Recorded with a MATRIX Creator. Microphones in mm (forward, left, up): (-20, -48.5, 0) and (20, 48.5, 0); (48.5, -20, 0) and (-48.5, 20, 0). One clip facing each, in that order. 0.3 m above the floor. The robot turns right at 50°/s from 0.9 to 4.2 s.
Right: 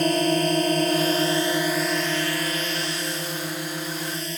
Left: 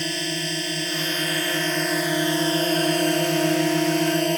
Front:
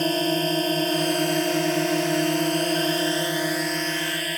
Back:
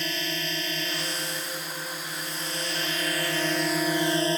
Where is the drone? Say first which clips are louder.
Right 8 dB, front 10 dB; 70° right; by 4.4 s 95° left.